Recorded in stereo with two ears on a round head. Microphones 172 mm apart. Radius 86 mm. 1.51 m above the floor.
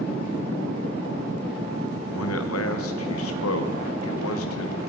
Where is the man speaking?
85° left, 1.1 m.